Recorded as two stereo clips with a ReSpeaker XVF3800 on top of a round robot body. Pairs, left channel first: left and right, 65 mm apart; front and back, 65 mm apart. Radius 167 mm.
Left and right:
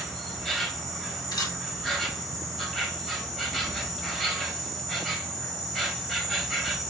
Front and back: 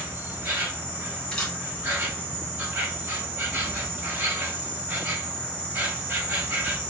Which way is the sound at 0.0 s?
170° left.